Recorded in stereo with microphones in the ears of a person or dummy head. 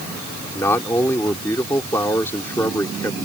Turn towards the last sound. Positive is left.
turn(degrees=15)  # may be behind; listen again after turning